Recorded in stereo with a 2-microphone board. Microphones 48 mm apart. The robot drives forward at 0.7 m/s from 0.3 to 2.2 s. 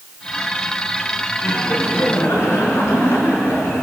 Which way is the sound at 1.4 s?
65° left (ahead or behind).